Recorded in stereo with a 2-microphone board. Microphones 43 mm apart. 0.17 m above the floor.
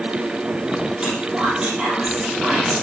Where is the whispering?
20° right (ahead or behind), 4.5 m.